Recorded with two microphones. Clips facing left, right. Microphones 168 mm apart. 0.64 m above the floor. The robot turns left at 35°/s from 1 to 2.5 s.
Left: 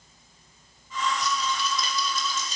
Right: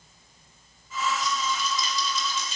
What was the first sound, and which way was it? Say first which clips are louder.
A rattle: even; 90° left.